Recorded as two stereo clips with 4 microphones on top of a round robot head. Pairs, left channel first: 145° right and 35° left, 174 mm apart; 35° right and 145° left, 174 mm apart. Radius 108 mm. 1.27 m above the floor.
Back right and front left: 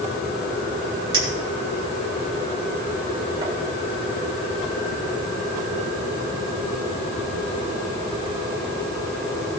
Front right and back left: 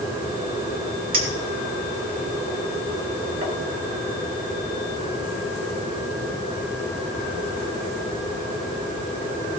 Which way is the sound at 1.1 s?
100° left.